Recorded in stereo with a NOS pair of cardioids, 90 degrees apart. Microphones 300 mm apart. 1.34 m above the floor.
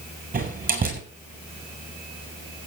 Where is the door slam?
30° right, 7 m.